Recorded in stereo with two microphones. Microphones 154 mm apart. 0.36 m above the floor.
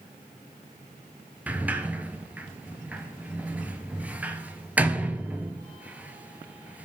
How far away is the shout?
No shout in this recording.